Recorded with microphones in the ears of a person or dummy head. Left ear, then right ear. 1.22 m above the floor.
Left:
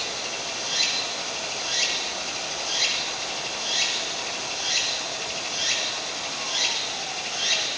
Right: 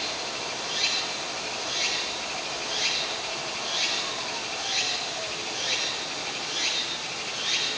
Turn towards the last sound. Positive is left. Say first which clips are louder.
# left 1 dB
turn(degrees=85)